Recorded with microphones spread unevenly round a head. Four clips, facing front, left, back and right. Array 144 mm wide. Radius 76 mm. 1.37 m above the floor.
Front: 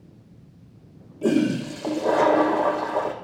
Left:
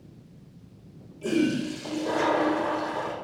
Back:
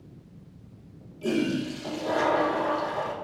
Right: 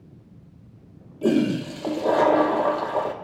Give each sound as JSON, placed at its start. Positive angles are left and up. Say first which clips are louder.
{"t": 1.2, "sound": "a toilet flushing", "louder": "right 4 dB, front 5 dB", "azimuth_deg": -50, "distance_m": 1.2}